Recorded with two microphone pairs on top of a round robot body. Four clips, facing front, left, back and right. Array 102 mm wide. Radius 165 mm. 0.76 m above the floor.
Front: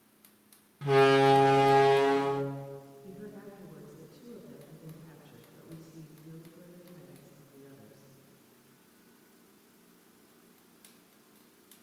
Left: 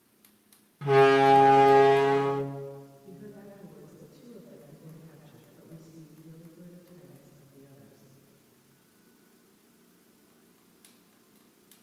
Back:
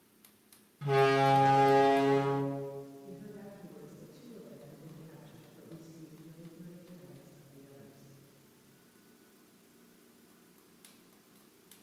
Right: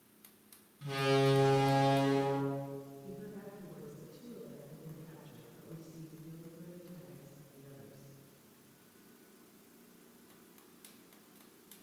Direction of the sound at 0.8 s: 65° left.